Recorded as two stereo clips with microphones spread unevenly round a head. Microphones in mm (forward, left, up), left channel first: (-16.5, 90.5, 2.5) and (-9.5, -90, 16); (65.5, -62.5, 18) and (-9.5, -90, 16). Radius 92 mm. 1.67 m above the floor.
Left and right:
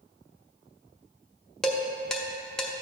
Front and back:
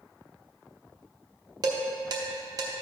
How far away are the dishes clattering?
About 0.8 m.